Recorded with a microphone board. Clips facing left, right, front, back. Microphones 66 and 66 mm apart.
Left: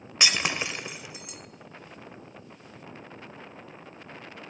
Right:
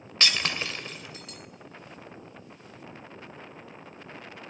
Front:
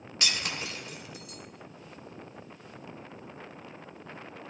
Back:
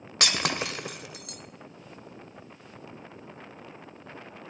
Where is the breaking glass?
165° left, 0.5 m.